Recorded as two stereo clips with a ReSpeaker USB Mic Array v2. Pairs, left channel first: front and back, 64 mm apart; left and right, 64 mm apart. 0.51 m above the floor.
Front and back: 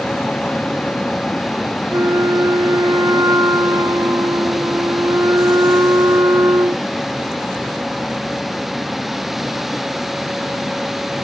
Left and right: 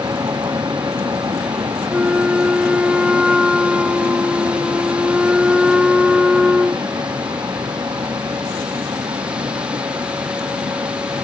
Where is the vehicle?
75° right; by 11.2 s 90° right.